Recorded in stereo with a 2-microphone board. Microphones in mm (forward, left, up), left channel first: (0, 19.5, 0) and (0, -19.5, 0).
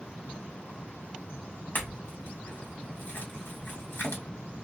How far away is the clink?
About 1.4 m.